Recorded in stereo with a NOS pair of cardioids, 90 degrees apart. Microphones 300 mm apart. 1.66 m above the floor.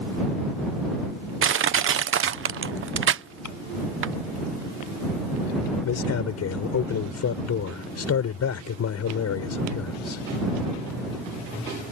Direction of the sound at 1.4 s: 45° right.